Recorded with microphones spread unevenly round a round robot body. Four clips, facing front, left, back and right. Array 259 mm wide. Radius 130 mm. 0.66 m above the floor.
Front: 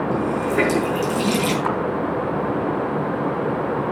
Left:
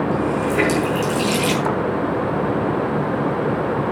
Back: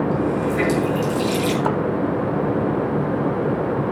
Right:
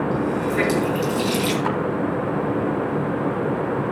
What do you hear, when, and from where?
0.1 s a running tap: 15° left, 6 m
1.6 s a splash: 160° left, 0.7 m